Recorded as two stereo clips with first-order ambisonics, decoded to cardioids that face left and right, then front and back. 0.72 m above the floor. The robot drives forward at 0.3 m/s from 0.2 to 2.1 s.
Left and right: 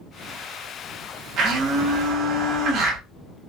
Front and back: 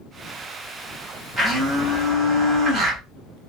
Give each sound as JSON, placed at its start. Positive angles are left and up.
{"t": 1.4, "sound": "a blender", "azimuth_deg": -105, "distance_m": 1.1}